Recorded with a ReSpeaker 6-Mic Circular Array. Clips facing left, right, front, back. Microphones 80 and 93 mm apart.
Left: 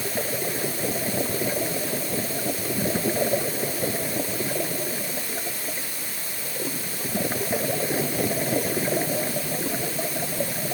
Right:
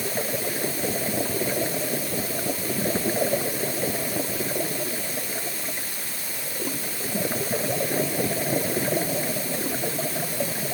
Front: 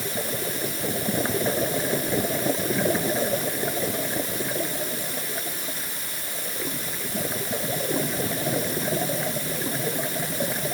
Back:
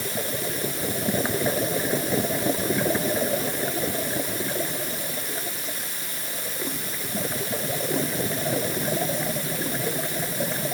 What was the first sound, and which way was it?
Only background noise.